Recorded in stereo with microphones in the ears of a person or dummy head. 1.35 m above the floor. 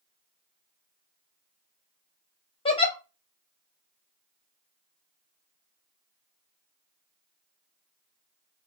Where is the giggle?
25° left (ahead or behind), 0.8 m.